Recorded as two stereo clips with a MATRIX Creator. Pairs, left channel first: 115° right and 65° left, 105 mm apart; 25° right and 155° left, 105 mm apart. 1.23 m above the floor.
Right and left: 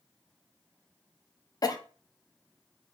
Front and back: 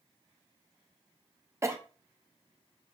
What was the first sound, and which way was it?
A cough, 150° right.